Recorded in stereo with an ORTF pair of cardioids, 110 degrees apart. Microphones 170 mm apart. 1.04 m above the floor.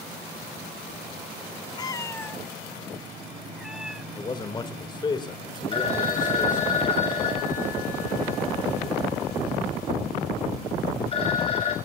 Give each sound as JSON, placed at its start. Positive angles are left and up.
{"t": 1.8, "sound": "a cat meowing", "azimuth_deg": 25, "distance_m": 0.7}
{"t": 4.2, "sound": "a man speaking", "azimuth_deg": 25, "distance_m": 3.0}
{"t": 5.7, "sound": "a phone ringing", "azimuth_deg": 35, "distance_m": 5.0}